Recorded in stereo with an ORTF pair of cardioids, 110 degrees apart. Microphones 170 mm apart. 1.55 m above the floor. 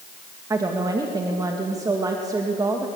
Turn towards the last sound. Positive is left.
turn(degrees=-20)